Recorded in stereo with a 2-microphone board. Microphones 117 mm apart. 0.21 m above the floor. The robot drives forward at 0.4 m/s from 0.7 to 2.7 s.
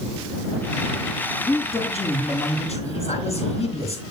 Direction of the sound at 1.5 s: 60° left (ahead or behind).